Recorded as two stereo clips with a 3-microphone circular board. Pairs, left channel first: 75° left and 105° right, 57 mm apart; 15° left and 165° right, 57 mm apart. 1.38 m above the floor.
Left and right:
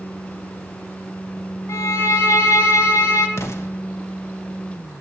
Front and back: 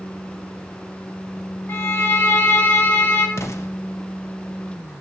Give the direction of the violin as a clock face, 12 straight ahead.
10 o'clock.